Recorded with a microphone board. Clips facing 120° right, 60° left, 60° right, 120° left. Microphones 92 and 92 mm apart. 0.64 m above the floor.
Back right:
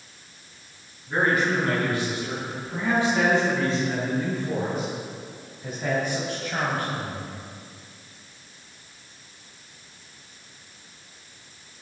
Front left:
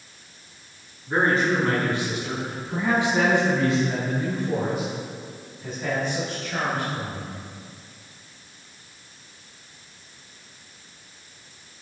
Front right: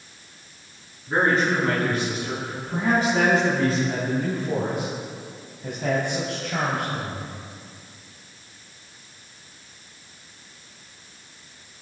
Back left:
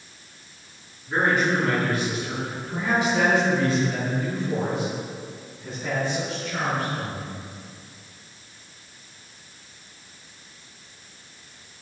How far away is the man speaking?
About 6 m.